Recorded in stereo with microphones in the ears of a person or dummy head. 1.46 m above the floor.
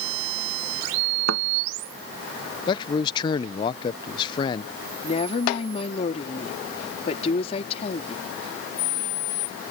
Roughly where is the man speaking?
Left.